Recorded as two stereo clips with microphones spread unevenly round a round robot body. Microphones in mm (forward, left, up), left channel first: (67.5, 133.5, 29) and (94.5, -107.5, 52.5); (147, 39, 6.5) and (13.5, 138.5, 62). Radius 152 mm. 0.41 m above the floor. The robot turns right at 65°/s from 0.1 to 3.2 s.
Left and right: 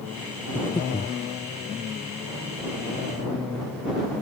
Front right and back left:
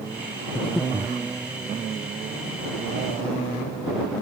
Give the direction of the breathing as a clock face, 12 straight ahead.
11 o'clock.